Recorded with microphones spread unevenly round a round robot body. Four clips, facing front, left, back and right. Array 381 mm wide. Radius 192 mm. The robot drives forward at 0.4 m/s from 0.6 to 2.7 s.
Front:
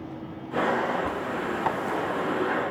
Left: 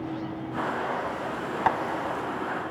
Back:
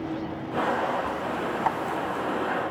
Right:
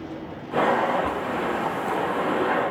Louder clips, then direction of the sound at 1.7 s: Left 4 dB, back 1 dB; 85° left.